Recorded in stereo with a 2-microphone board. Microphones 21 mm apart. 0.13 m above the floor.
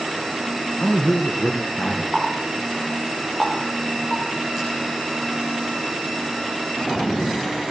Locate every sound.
0.8 s a man speaking: 70° left (ahead or behind), 4.5 m
2.1 s a running tap: 25° left (ahead or behind), 10 m